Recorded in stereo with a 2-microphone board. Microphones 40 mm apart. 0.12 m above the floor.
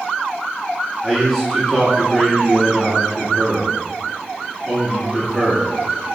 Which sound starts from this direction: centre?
A man speaking, at 1.0 s.